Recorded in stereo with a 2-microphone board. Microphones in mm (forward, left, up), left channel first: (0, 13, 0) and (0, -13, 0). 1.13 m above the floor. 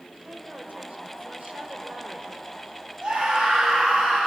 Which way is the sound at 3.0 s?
35° right (ahead or behind).